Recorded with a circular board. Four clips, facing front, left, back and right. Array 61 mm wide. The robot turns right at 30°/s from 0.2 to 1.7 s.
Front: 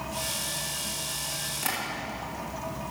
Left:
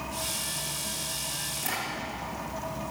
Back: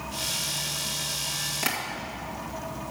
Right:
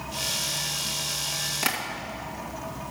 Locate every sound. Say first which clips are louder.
1.6 s tapping: right 6 dB, back 3 dB; 115° right, 2 m; by 1.8 s 110° right, 2 m